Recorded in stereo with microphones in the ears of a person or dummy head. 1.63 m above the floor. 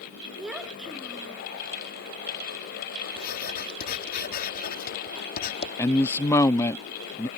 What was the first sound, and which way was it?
A child speaking, centre (ahead or behind).